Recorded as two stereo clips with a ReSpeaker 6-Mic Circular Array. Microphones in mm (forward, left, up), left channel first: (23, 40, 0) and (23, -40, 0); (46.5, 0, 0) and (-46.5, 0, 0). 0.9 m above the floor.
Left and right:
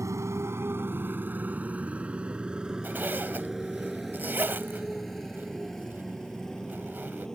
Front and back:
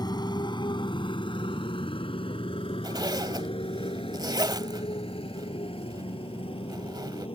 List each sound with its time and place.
0.0 s a motorcycle: 40° right; by 7.4 s 5° left
2.8 s a zipper: 150° right